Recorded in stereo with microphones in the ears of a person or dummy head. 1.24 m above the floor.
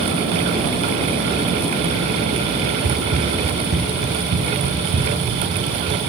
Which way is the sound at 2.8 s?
35° right (ahead or behind).